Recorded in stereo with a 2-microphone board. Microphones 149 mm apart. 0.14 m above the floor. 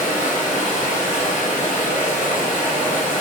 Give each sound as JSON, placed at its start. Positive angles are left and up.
{"t": 0.0, "sound": "running water", "side_deg": 60, "distance_m": 1.2}